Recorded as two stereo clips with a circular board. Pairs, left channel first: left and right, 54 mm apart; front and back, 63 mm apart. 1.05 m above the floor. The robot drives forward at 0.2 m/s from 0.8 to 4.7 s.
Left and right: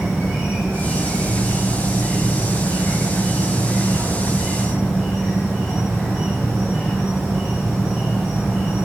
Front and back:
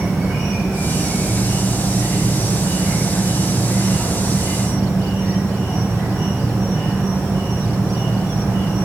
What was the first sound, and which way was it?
An insect, 95° left.